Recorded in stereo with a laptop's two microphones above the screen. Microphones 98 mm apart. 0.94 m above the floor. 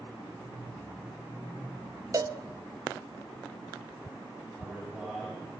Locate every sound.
2.1 s a cowbell: 40° right (ahead or behind), 0.6 m
4.6 s a man speaking: 5° right (ahead or behind), 8.5 m